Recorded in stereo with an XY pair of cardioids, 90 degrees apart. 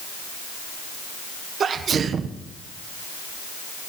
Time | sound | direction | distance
1.6 | a sneeze | 55° right | 1.3 m